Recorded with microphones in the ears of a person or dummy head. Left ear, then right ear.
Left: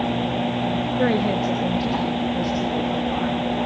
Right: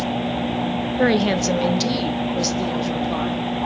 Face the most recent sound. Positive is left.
turn(degrees=-85)